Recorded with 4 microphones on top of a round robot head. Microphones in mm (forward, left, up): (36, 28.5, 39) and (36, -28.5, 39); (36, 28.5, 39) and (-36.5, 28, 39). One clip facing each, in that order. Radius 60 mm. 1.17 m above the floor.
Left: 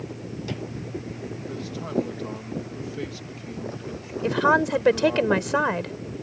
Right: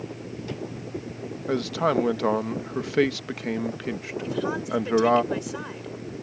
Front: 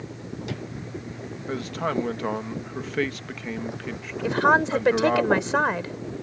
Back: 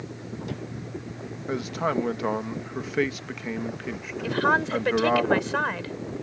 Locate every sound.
1.5 s a man speaking: 95° right
4.2 s a woman speaking: 65° left